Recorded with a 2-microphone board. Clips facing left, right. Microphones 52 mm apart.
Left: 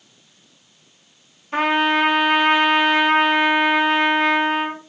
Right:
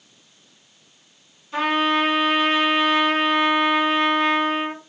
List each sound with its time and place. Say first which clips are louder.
1.5 s a trumpet: left 2 dB; 40° left (ahead or behind), 0.8 m